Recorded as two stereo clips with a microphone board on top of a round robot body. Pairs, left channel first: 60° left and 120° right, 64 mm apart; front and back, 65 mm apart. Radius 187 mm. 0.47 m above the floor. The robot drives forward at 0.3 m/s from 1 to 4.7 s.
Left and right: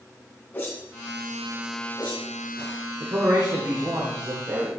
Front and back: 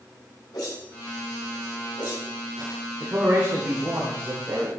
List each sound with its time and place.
0.5 s a whoosh: 5° right, 3.5 m
3.0 s a man speaking: 130° right, 2 m; by 4.7 s 140° right, 2.5 m